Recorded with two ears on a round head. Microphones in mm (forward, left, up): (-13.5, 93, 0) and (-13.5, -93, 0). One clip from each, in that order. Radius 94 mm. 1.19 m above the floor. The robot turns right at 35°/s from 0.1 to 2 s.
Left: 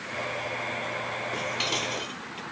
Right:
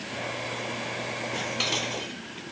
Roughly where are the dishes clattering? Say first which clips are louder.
Right 1 dB; centre.